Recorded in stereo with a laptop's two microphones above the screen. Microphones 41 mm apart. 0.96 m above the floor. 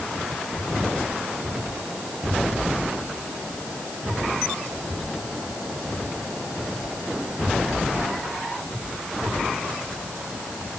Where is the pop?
No pop in this recording.